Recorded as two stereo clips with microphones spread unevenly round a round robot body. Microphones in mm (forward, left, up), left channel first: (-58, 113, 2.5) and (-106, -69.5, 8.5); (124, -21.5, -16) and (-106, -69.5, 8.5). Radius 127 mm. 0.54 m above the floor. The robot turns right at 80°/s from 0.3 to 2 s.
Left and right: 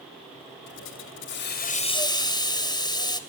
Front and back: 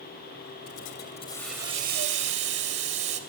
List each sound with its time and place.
0.7 s a hiss: 35° left, 2.5 m; by 3.2 s 140° left, 2.5 m